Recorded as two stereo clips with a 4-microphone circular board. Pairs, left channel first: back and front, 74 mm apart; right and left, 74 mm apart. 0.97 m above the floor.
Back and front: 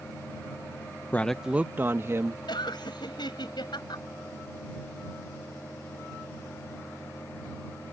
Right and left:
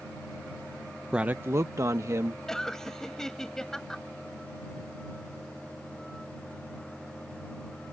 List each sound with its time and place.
1.1 s a man speaking: 160° left; by 2.4 s 45° left
2.5 s laughter: 175° right